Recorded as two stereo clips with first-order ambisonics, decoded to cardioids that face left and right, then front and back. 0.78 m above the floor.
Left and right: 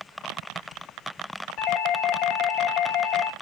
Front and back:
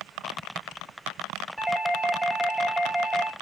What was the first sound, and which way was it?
A doorbell, 95° left.